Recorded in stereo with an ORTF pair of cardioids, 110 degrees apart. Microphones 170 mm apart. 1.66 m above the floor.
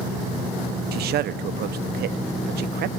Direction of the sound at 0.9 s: 65° right.